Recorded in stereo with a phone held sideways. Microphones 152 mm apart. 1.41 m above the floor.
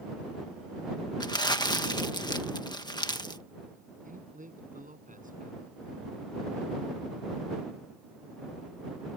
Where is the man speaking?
60° right (ahead or behind).